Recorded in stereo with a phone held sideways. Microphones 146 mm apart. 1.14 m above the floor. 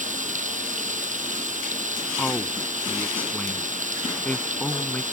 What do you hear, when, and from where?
0.0 s running water: 60° right (ahead or behind)
2.2 s a man speaking: 10° left (ahead or behind)